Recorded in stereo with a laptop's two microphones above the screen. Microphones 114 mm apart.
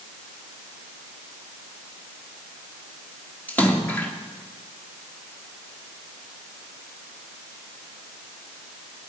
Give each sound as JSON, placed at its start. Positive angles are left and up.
{"t": 3.5, "sound": "a splash", "side_deg": 15, "distance_m": 2.0}